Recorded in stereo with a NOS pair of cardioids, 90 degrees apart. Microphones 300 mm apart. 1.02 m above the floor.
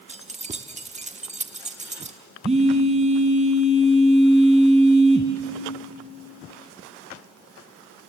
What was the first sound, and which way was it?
Keys jangling, 20° right.